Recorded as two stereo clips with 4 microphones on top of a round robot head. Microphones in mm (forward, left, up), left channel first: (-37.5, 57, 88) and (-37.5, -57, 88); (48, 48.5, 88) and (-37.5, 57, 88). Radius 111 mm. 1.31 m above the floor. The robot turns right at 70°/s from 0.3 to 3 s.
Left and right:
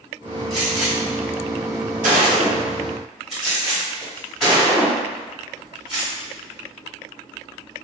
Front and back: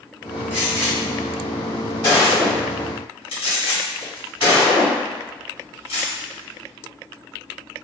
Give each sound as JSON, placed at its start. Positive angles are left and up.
{"t": 0.5, "sound": "a gunshot", "azimuth_deg": -175, "distance_m": 1.3}